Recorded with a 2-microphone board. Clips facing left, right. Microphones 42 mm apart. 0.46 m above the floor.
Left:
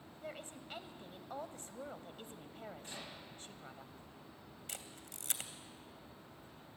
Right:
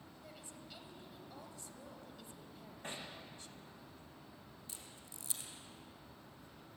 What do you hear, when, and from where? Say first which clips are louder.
0.2 s a woman speaking: left 8 dB; 45° left (ahead or behind), 1.8 m
2.8 s hammering: right 2 dB; 40° right (ahead or behind), 10 m
4.7 s a camera shutter: left 4 dB; 70° left (ahead or behind), 1.9 m